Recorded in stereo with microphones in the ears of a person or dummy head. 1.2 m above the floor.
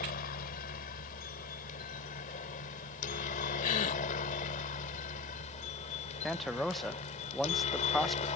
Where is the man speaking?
Centre (ahead or behind).